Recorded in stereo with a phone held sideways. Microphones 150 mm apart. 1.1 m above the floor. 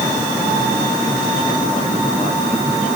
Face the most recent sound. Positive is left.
No sound to turn to.